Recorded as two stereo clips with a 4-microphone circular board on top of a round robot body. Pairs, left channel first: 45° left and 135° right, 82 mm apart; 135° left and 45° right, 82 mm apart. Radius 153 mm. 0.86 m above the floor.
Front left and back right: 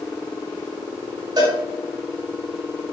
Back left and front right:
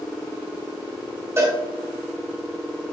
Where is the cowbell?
105° right, 4 m.